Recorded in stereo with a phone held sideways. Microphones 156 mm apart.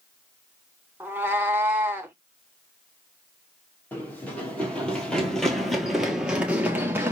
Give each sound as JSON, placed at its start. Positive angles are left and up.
{"t": 1.0, "sound": "a cat meowing", "side_deg": -10, "distance_m": 0.9}
{"t": 3.9, "sound": "running footsteps", "side_deg": 10, "distance_m": 2.0}